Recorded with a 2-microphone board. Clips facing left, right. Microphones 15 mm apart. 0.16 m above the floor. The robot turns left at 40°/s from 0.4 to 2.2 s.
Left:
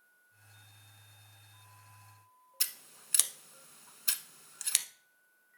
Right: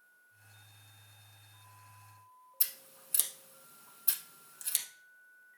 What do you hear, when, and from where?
2.6 s scissors: 40° left (ahead or behind), 0.6 m